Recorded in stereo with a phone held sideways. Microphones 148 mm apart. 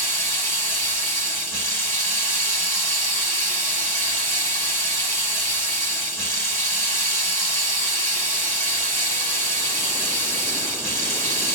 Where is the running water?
20° left (ahead or behind), 2.0 m.